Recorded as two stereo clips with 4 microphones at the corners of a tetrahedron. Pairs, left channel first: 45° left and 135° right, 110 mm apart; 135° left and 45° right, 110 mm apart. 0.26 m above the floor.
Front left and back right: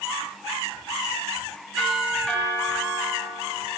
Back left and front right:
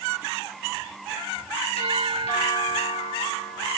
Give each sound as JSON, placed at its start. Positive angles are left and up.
{"t": 1.8, "sound": "a doorbell", "azimuth_deg": 130, "distance_m": 7.0}